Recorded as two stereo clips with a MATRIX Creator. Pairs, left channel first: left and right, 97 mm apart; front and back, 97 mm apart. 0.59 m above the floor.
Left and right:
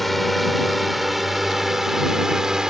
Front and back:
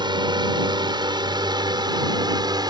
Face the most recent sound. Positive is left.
turn(degrees=-170)